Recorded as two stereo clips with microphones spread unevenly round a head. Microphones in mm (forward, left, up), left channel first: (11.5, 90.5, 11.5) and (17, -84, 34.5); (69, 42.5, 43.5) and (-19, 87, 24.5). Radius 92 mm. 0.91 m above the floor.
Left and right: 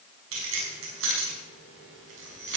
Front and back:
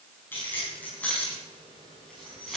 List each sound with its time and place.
0.3 s keys jangling: 105° right, 6 m; by 2.6 s 115° right, 6 m